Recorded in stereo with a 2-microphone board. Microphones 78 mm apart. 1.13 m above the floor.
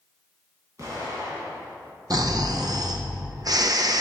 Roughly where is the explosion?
Right.